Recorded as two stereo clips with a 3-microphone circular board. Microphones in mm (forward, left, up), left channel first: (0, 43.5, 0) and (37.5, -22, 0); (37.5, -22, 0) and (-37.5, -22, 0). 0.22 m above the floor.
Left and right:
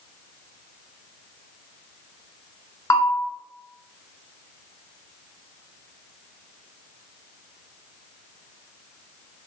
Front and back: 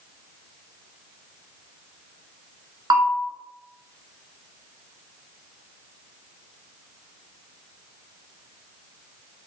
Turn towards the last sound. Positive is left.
turn(degrees=160)